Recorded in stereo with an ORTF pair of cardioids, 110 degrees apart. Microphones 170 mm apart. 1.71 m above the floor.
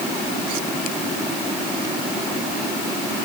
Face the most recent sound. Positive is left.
No sound to turn to.